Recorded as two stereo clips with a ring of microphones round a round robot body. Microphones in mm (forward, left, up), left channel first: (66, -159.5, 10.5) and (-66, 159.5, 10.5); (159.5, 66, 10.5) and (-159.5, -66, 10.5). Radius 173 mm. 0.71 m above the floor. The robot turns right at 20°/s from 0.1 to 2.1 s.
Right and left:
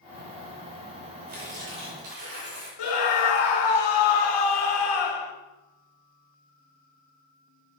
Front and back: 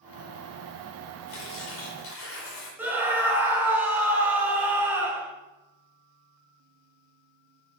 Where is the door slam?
No door slam in this recording.